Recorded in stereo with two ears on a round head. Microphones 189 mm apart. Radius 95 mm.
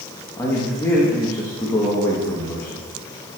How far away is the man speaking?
About 1.5 m.